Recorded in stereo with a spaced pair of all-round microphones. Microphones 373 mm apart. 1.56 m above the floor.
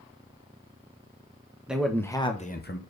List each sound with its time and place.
1.7 s a man speaking: 5° right (ahead or behind), 1.2 m; by 2.8 s 35° left (ahead or behind), 0.9 m